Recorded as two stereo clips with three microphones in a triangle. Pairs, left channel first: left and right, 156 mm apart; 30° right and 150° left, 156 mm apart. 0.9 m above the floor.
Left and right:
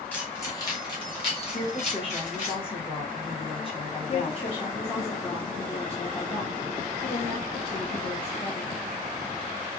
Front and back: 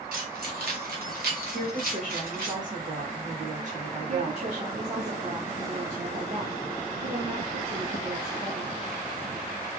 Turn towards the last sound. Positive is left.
turn(degrees=135)